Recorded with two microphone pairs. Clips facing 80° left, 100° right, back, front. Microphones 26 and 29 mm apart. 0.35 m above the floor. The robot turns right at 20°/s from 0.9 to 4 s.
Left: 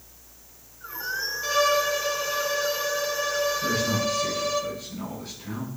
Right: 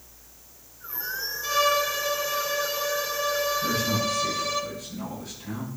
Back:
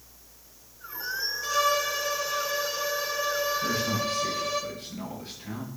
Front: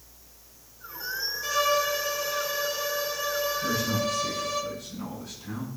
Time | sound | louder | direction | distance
1.4 | a violin | left 1 dB, front 1 dB | 90° left | 1.6 m
3.6 | a man speaking | left 1 dB, even | 130° left | 5.5 m